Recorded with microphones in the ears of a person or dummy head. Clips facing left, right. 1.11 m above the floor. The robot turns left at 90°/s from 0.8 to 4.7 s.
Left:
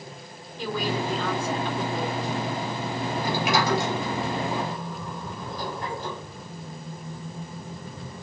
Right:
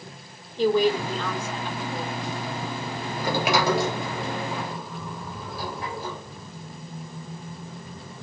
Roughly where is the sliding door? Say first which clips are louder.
Right 2 dB; right.